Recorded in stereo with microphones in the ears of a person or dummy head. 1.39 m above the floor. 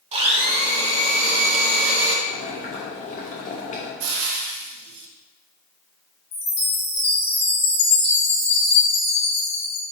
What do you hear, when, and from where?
0.1 s a blender: 30° right (ahead or behind), 0.7 m
2.3 s boiling: 40° left (ahead or behind), 0.9 m
4.0 s frying: 70° right (ahead or behind), 0.8 m
6.3 s a chime: 60° left (ahead or behind), 0.7 m